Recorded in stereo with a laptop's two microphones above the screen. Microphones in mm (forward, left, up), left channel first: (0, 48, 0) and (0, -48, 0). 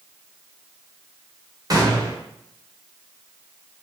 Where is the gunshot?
40° right (ahead or behind), 0.8 m.